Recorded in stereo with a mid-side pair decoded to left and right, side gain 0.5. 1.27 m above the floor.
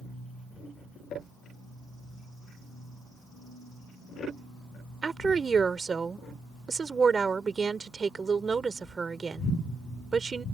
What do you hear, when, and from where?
5.0 s a woman speaking: 30° right